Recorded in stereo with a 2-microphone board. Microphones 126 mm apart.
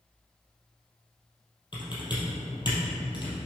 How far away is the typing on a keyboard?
About 3 m.